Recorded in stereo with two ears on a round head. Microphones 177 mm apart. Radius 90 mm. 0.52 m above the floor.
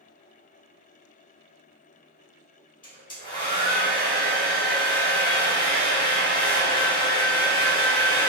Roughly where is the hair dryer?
Left.